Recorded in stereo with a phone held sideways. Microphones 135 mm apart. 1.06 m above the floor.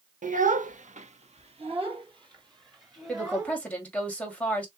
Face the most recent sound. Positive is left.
turn(degrees=10)  # may be behind; listen again after turning